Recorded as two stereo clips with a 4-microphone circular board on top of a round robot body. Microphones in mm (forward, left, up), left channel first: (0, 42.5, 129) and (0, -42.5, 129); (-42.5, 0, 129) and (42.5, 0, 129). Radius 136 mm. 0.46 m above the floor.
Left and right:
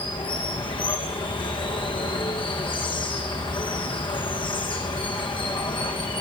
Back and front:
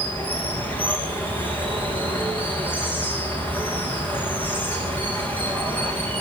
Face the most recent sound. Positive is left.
turn(degrees=110)